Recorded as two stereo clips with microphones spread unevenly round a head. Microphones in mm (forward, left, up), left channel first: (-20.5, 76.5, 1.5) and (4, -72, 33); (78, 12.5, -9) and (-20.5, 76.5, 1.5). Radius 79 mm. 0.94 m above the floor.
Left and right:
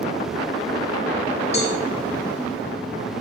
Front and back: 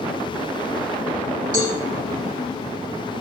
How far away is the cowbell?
About 8 m.